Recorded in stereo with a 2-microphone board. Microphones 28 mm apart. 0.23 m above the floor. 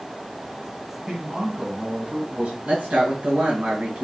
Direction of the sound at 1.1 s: 15° right (ahead or behind).